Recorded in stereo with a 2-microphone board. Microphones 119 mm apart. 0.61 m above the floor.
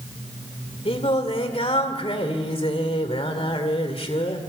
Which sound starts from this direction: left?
Singing, at 0.8 s.